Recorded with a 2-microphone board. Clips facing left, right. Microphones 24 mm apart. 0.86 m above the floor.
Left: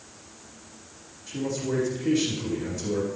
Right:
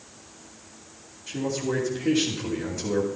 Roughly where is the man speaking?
Right.